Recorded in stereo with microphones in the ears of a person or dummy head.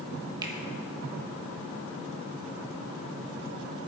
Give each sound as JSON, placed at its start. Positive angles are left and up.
{"t": 0.4, "sound": "a finger snap", "side_deg": -25, "distance_m": 1.4}